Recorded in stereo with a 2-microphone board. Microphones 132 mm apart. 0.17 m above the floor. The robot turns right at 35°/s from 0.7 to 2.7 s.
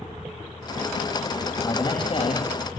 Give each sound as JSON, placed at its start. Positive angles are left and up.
{"t": 1.6, "sound": "a man speaking", "azimuth_deg": 25, "distance_m": 7.0}